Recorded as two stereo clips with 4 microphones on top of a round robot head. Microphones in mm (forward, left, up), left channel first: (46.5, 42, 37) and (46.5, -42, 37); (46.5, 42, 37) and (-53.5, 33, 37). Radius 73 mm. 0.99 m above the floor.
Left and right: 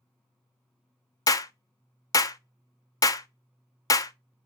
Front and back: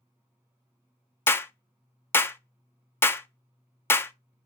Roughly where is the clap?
Ahead left.